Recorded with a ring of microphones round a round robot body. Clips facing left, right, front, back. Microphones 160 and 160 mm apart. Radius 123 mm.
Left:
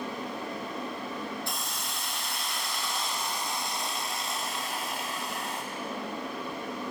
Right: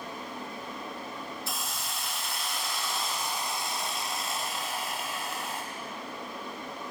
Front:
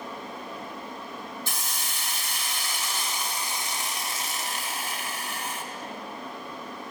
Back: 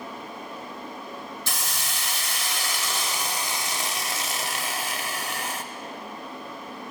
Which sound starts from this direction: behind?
A hiss, at 1.5 s.